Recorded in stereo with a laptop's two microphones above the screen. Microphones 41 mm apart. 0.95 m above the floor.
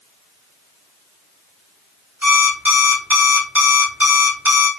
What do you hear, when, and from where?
2.2 s an alarm clock: 50° right (ahead or behind), 1.3 m